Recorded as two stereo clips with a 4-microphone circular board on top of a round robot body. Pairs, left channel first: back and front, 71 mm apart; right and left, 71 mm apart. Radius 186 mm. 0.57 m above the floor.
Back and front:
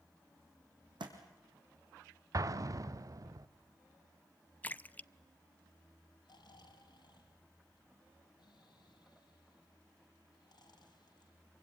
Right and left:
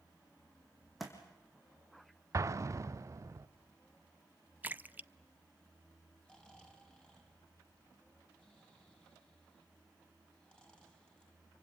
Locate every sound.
1.0 s a thud: straight ahead, 3 m
2.3 s an explosion: 40° left, 0.7 m
4.6 s a splash: 130° left, 0.7 m
6.2 s snoring: 170° right, 4 m